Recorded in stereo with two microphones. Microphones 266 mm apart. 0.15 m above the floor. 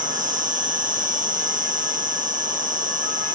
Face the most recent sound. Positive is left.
turn(degrees=-30)  # may be behind; listen again after turning